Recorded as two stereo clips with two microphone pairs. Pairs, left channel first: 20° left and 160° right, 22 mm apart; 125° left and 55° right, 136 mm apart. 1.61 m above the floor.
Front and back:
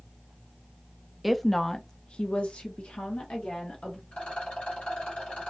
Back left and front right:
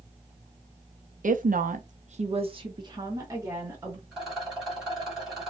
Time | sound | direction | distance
1.2 | a woman speaking | 75° right | 0.6 m
4.1 | a rattle | 30° left | 2.5 m